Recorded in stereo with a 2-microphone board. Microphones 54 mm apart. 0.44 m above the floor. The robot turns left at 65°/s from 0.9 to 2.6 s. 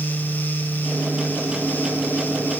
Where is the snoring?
No snoring in this recording.